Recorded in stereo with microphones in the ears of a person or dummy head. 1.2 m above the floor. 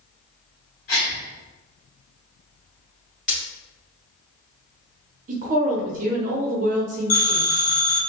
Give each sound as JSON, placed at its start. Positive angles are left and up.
{"t": 0.9, "sound": "a gasp", "side_deg": 45, "distance_m": 1.3}
{"t": 3.3, "sound": "breaking glass", "side_deg": 5, "distance_m": 1.4}
{"t": 5.3, "sound": "a woman speaking", "side_deg": -50, "distance_m": 0.9}
{"t": 7.1, "sound": "a phone ringing", "side_deg": 50, "distance_m": 1.1}